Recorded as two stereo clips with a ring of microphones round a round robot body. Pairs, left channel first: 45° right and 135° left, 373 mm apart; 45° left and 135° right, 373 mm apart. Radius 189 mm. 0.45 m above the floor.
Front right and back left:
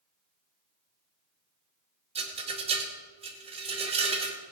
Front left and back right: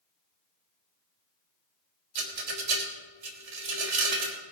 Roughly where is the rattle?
Behind right.